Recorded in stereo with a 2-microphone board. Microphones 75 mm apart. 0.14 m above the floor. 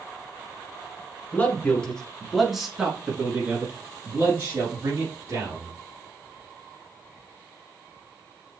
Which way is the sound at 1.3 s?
25° left (ahead or behind).